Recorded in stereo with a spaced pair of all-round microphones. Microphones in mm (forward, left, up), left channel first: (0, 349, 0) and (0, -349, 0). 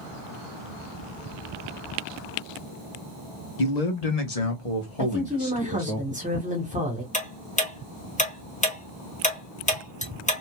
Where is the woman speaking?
10° right (ahead or behind), 1.2 m.